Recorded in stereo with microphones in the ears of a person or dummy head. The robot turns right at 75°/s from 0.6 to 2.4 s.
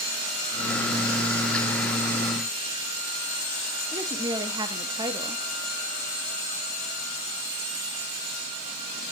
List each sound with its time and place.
3.9 s a woman speaking: 20° right (ahead or behind), 0.9 m